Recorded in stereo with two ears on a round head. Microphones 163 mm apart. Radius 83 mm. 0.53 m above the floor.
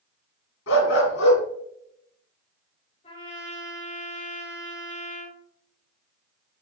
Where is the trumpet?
35° left (ahead or behind), 3.5 m.